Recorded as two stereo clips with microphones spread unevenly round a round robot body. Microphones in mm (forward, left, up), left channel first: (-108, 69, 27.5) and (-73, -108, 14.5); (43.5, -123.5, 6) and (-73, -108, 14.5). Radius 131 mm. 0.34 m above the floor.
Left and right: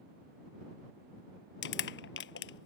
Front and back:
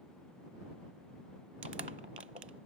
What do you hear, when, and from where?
1.6 s crushing: 110° left